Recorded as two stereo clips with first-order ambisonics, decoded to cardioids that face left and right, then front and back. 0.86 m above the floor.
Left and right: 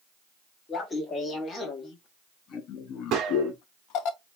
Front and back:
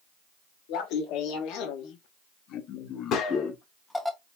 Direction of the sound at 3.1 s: 50° right.